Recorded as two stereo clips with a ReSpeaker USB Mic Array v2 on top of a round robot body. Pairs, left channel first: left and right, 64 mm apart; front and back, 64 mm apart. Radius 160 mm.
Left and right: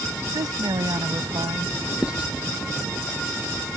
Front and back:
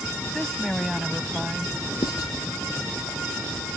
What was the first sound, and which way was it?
A woman speaking, 80° right.